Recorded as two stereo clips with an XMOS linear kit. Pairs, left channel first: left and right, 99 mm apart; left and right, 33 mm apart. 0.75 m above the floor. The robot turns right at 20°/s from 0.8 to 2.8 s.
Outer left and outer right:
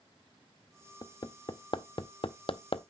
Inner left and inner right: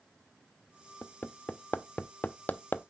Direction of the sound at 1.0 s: 40° left (ahead or behind).